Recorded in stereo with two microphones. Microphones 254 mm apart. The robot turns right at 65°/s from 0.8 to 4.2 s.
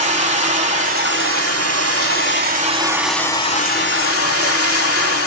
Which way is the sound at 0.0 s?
150° right.